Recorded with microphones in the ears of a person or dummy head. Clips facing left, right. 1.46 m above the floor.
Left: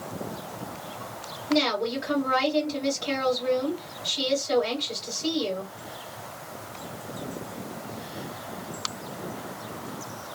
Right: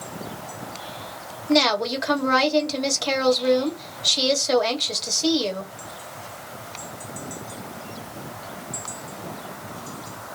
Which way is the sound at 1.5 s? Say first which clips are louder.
Right 4 dB; 70° right (ahead or behind).